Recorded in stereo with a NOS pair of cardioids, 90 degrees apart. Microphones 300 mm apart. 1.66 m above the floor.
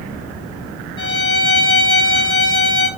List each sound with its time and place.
1.0 s a violin: 35° left, 1.5 m